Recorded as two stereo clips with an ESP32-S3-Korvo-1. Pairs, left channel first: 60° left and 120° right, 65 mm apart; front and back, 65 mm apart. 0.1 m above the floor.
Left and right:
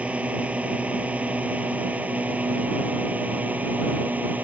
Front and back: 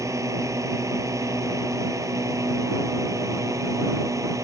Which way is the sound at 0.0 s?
175° left.